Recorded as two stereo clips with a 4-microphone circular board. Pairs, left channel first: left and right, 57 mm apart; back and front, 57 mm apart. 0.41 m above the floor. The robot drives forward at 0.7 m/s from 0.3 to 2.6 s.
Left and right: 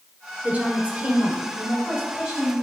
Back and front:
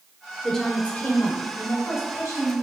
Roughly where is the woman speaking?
Right.